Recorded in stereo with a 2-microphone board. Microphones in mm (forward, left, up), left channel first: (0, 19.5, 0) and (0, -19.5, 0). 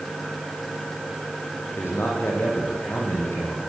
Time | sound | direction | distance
1.8 | a man speaking | 80° left | 8.5 m